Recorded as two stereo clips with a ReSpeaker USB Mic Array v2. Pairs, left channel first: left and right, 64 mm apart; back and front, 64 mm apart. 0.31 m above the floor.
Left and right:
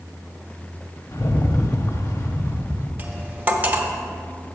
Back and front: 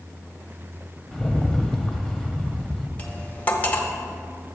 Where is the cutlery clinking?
135° right, 0.8 m.